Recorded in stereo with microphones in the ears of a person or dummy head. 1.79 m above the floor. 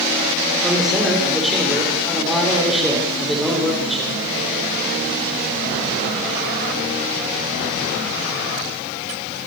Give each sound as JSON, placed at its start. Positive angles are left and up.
{"t": 0.6, "sound": "a man speaking", "side_deg": -5, "distance_m": 7.0}